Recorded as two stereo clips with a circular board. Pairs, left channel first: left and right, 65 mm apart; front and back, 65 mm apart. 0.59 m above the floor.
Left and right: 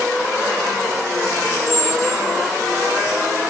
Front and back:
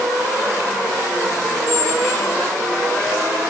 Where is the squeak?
55° right, 2.5 m.